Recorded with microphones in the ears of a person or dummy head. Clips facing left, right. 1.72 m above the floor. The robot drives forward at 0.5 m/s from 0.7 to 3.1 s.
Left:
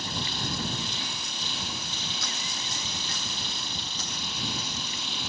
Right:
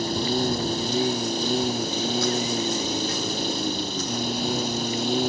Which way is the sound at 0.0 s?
30° right (ahead or behind).